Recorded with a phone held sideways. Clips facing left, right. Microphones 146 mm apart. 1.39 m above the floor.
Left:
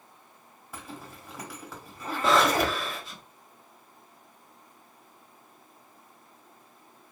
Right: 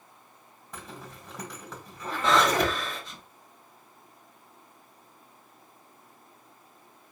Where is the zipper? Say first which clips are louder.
Left 1 dB; 5° left (ahead or behind), 1.5 m.